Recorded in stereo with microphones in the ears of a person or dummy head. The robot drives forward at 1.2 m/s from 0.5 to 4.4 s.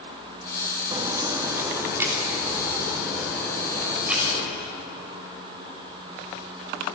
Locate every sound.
0.9 s a crack: 25° right (ahead or behind), 1.5 m; by 4.4 s 5° right (ahead or behind), 5.5 m